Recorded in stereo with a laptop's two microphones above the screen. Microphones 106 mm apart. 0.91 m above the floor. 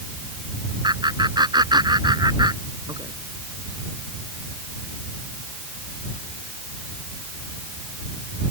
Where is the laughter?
40° right (ahead or behind).